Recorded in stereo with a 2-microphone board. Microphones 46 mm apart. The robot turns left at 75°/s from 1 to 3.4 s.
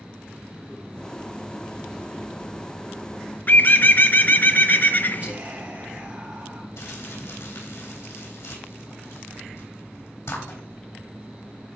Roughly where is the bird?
Left.